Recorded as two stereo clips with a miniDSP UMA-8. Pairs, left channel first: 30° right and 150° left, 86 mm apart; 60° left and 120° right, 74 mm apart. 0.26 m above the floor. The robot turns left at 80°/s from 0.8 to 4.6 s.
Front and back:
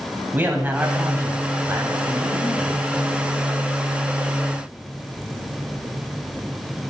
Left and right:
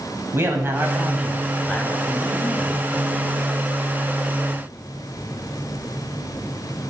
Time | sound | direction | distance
0.3 | a man speaking | 155° right | 1.3 m